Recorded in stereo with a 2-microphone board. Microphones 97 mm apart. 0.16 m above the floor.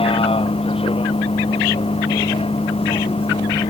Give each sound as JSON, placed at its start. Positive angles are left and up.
{"t": 0.0, "sound": "a vehicle", "side_deg": 80}